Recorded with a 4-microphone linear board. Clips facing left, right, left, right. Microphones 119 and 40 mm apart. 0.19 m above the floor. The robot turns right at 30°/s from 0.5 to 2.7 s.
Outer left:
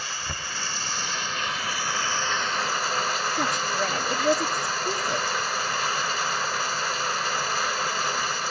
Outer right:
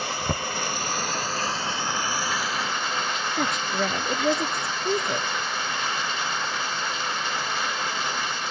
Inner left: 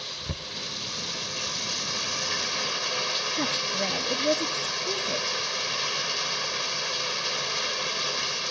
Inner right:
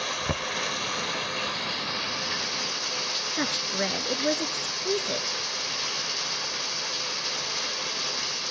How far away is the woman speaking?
About 2.5 m.